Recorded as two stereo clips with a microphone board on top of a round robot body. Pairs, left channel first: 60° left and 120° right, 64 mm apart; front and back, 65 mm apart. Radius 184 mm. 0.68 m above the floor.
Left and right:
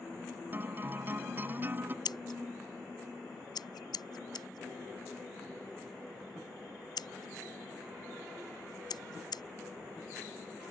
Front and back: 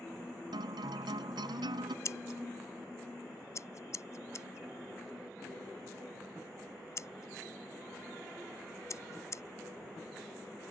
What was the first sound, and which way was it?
A guitar, straight behind.